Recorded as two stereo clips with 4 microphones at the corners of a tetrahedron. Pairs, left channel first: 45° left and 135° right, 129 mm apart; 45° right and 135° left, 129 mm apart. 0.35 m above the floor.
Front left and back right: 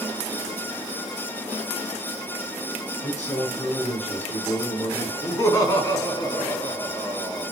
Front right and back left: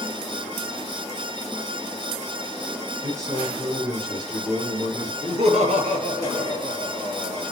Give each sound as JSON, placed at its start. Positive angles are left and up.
{"t": 3.0, "sound": "a man speaking", "azimuth_deg": 70, "distance_m": 4.5}
{"t": 5.2, "sound": "laughter", "azimuth_deg": 110, "distance_m": 3.0}